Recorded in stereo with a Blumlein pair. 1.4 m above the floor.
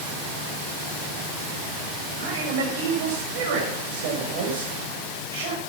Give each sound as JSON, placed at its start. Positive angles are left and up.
{"t": 2.2, "sound": "a man speaking", "azimuth_deg": -50, "distance_m": 6.5}